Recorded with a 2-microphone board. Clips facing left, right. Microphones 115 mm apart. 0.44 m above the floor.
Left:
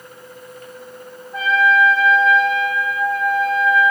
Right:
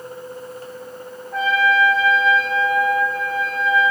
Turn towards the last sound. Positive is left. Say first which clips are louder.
# left 2 dB
turn(degrees=-80)